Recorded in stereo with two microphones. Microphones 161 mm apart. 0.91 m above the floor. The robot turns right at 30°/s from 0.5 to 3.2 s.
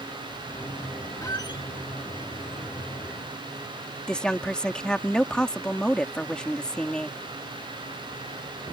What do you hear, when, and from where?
1.2 s a squeak: 20° left (ahead or behind); by 1.6 s 35° left (ahead or behind)
4.1 s a woman speaking: 5° left (ahead or behind)